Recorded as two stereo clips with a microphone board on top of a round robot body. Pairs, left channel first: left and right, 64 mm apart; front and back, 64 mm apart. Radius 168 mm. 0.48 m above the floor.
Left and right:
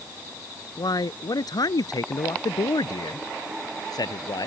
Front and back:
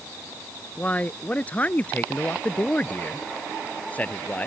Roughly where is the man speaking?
Left.